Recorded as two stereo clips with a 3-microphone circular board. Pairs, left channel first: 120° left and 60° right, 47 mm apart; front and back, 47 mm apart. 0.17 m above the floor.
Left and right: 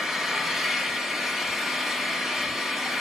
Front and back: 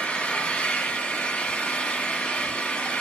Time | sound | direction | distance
0.0 | an engine running | 10° left | 1.5 m